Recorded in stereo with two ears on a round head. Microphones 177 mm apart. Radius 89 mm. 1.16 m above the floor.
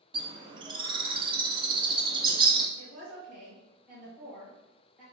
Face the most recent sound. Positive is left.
turn(degrees=-10)  # may be behind; listen again after turning